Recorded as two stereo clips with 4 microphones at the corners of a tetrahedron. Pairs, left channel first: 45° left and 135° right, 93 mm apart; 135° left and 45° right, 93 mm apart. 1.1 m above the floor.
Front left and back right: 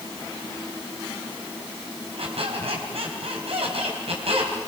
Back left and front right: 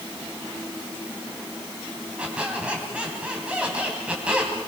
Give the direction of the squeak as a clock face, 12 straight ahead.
4 o'clock.